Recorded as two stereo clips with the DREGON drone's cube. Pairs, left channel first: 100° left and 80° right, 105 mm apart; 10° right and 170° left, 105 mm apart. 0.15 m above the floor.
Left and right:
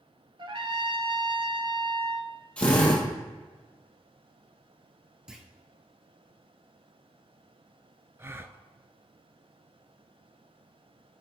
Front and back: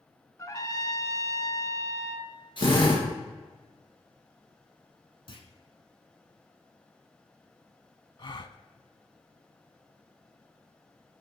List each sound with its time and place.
0.4 s a trumpet: 65° right, 0.8 m
2.6 s a drill: 25° left, 2.5 m
5.3 s a clunk: 5° left, 1.1 m
8.2 s a gasp: 25° right, 0.5 m